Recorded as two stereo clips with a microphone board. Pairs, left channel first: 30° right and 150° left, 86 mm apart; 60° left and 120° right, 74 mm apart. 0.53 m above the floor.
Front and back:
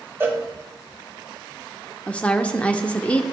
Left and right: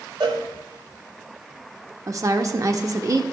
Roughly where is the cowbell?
Behind right.